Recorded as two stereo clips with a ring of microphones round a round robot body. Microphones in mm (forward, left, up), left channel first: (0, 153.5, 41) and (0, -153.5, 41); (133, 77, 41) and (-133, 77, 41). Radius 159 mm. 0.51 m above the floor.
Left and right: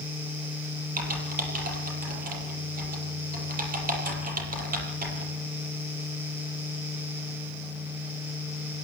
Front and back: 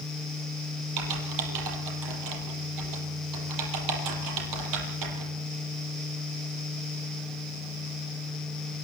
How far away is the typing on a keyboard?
About 7 m.